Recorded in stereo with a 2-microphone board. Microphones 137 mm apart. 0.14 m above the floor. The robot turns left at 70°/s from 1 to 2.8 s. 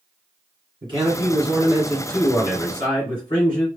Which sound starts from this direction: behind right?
A man speaking, at 0.8 s.